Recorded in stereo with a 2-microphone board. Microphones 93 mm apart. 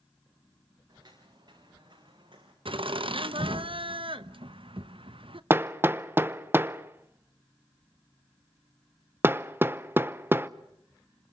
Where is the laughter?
75° right (ahead or behind), 0.9 m.